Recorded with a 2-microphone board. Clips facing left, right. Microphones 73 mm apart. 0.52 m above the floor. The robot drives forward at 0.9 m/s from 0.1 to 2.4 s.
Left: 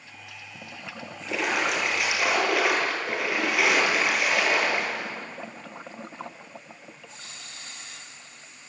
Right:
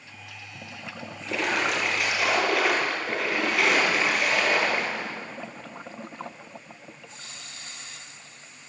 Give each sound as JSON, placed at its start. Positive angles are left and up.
{"t": 1.2, "sound": "a splash", "side_deg": 0, "distance_m": 8.5}